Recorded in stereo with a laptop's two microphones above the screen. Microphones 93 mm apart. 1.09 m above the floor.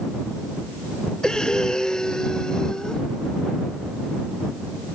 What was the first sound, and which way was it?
Breathing, 5° left (ahead or behind).